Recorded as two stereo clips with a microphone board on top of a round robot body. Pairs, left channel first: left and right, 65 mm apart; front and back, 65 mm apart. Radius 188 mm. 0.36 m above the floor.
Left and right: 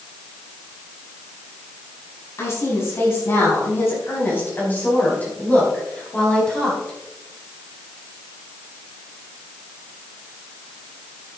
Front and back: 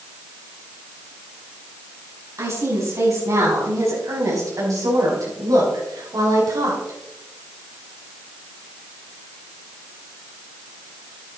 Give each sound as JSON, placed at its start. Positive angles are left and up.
{"t": 2.4, "sound": "a woman speaking", "azimuth_deg": 140, "distance_m": 5.5}